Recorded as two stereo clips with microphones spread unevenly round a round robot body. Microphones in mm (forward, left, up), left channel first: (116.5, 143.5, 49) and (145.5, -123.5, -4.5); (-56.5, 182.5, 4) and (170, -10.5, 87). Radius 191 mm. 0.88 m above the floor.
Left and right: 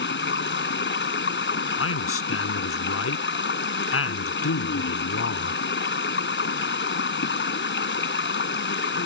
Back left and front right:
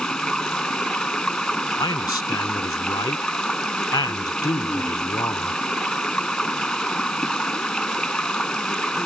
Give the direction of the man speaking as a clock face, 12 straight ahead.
10 o'clock.